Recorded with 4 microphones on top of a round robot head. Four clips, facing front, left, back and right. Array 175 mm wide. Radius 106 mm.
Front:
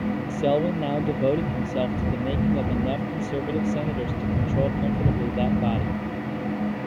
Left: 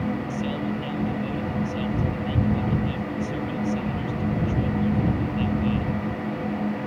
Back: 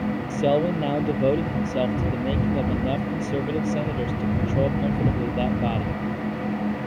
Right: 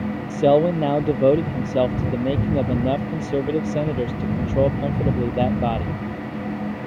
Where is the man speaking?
95° right.